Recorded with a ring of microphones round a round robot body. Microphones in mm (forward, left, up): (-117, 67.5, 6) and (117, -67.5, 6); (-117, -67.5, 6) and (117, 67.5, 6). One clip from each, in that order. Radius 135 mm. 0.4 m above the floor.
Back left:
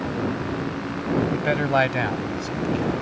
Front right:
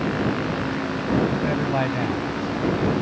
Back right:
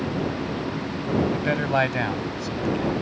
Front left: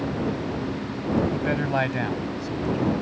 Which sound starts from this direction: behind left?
A man speaking, at 1.3 s.